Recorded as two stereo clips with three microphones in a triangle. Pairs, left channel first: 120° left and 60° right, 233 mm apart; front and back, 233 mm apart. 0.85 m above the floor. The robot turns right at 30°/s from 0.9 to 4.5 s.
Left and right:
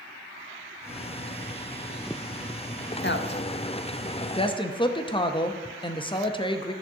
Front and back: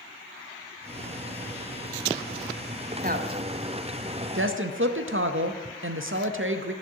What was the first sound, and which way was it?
A woman speaking, 140° left.